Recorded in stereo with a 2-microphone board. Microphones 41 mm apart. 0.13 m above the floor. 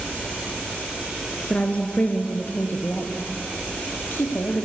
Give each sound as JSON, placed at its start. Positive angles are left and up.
{"t": 1.5, "sound": "a woman speaking", "side_deg": 30, "distance_m": 1.8}